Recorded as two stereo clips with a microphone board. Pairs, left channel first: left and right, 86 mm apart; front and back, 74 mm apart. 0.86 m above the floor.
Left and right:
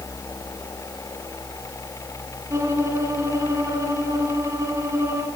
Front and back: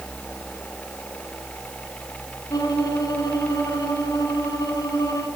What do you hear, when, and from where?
2.5 s a violin: 35° right, 4.5 m